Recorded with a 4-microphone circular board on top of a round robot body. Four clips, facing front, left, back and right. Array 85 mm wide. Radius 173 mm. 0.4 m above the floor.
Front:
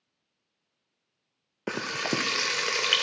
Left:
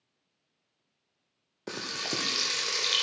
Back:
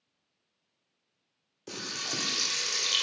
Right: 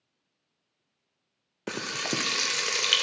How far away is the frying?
About 0.5 m.